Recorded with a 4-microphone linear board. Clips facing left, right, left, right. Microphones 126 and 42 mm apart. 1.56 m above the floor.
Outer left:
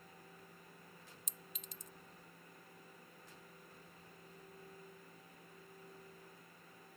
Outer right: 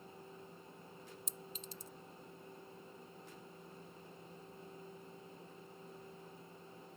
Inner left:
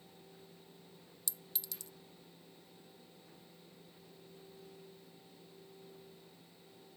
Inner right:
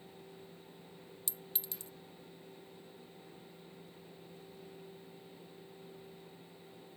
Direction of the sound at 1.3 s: 30° right (ahead or behind).